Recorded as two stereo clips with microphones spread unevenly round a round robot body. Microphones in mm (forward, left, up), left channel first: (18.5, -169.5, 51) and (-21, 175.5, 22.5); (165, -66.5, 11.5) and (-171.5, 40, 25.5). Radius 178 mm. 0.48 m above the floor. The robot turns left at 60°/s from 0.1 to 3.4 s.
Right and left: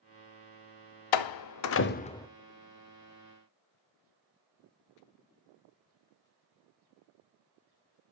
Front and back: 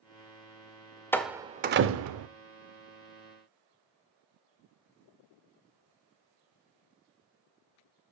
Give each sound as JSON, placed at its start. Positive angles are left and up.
{"t": 1.1, "sound": "a door slam", "azimuth_deg": -100, "distance_m": 0.7}